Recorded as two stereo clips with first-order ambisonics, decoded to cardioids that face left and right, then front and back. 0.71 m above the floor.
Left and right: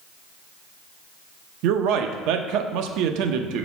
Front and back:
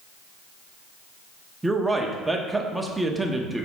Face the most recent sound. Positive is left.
turn(degrees=-95)